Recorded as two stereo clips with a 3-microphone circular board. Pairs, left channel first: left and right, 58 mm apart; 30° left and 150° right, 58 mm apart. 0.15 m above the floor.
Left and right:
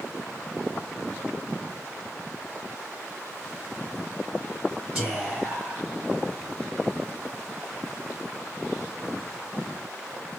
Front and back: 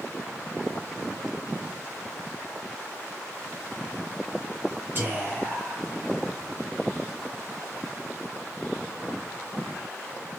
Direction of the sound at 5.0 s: 160° right.